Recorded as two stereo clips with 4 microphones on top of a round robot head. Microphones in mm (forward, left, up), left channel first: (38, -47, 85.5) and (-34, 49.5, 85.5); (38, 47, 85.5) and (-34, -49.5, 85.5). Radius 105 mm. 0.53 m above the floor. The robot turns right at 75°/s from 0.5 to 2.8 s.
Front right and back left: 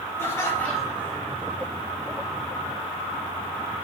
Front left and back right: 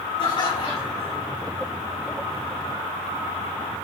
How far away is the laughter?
About 3.5 m.